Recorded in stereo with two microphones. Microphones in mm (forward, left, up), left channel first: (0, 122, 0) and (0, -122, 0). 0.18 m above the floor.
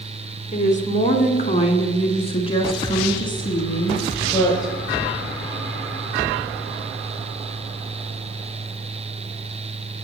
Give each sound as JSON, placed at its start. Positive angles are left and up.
{"t": 0.5, "sound": "a woman speaking", "side_deg": 30, "distance_m": 1.8}